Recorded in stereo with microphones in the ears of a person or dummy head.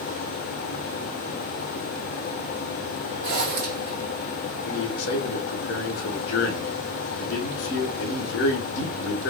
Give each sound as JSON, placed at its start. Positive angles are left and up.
{"t": 3.2, "sound": "a zipper", "side_deg": -60, "distance_m": 0.9}
{"t": 4.7, "sound": "a man speaking", "side_deg": 70, "distance_m": 0.7}